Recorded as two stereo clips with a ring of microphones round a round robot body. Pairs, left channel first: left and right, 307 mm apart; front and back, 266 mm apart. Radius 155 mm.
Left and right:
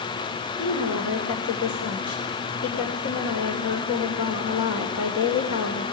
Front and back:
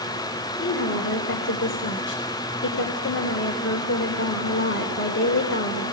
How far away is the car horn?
No car horn in this recording.